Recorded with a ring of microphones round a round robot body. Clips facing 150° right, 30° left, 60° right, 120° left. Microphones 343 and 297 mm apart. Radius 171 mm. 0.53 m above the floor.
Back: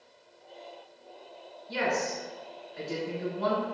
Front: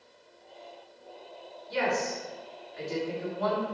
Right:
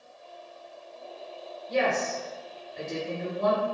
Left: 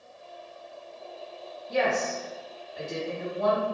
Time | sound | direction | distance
1.7 | a woman speaking | 115° right | 1.8 m